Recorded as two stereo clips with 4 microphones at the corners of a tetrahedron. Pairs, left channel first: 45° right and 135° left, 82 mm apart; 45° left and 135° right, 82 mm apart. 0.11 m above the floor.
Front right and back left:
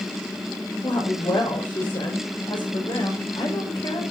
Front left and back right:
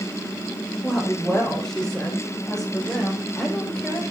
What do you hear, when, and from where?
0.8 s a woman speaking: 40° right, 7 m